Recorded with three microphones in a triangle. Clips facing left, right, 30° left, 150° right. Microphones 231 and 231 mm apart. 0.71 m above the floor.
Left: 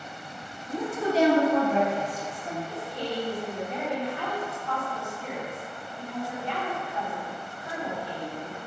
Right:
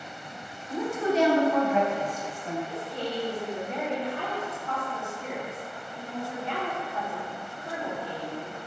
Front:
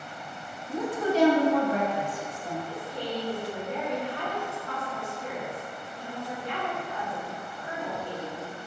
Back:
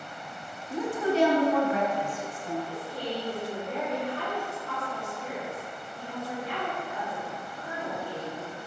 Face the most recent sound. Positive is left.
turn(degrees=-90)